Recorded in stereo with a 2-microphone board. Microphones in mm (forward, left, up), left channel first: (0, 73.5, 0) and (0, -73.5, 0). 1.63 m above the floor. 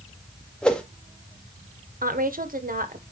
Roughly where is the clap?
No clap in this recording.